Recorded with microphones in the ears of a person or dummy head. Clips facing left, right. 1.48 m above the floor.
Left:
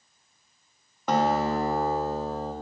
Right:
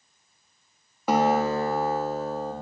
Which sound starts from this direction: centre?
A guitar, at 1.1 s.